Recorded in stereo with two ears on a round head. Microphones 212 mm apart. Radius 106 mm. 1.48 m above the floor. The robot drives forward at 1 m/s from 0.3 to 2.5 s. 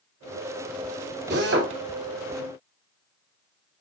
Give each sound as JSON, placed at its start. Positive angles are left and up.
{"t": 1.3, "sound": "a drill", "side_deg": -45, "distance_m": 3.0}